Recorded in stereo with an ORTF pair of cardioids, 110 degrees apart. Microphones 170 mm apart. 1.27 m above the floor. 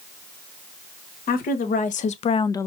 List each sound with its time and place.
1.3 s a woman speaking: 60° left, 1.5 m; by 2.7 s 10° left, 0.5 m